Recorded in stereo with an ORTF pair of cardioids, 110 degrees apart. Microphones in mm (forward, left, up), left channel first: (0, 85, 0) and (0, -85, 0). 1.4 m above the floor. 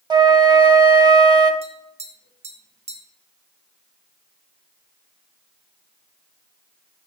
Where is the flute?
25° right, 1.1 m.